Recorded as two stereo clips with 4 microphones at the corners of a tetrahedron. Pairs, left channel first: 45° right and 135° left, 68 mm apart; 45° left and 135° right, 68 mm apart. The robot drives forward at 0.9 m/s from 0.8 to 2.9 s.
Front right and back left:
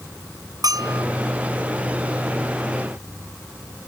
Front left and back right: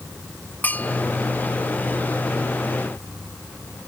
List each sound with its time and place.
0.6 s a bell: 110° left